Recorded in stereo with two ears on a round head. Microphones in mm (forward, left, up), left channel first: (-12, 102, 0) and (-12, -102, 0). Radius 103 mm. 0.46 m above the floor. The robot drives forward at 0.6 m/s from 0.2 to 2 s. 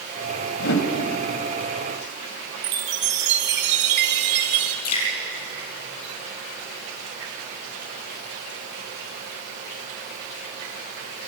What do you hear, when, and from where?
0.6 s a whoosh: 55° left (ahead or behind), 2 m
2.6 s a chime: 50° right (ahead or behind), 1.8 m
4.8 s dripping: 75° left (ahead or behind), 5 m